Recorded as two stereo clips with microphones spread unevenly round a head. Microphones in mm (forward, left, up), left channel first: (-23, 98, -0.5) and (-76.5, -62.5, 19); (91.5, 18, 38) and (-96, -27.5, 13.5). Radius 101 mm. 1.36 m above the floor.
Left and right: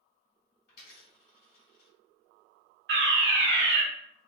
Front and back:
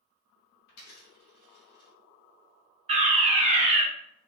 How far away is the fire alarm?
About 1.9 m.